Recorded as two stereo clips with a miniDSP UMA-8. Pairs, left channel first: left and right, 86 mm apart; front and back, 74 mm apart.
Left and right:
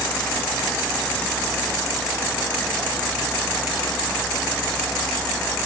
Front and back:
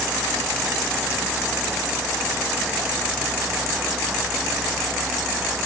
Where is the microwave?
I don't hear a microwave.